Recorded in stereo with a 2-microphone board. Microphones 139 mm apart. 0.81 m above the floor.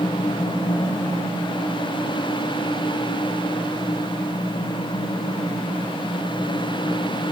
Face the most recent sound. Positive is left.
No sound to turn to.